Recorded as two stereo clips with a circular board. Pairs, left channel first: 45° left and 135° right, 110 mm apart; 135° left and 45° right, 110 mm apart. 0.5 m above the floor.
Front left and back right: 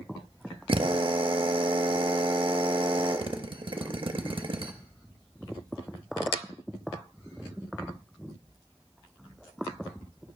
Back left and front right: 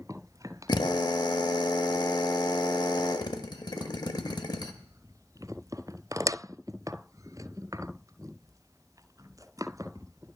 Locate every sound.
0.7 s a drill: 175° right, 0.6 m